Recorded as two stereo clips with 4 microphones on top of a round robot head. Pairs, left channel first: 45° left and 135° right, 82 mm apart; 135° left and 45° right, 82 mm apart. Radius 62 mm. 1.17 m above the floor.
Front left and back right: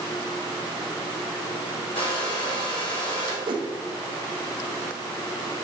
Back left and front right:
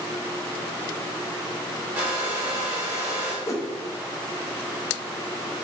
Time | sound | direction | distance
1.9 | a hair dryer | 35° left | 3 m
3.5 | a whoosh | 165° right | 1.0 m